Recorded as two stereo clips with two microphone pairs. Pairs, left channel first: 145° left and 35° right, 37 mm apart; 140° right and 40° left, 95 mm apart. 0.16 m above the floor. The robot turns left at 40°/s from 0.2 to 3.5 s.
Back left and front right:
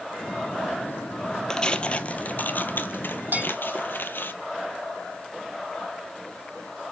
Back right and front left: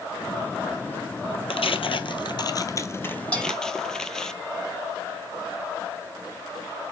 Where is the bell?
60° right, 5 m; by 3.5 s 70° right, 5 m.